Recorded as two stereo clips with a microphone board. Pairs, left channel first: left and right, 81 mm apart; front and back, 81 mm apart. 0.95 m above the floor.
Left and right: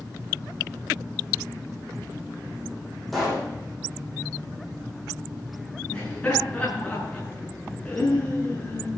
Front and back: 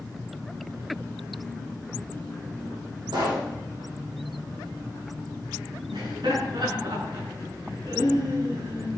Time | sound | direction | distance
3.1 | a pop | straight behind | 9 m
5.9 | laughter | 165° left | 9.5 m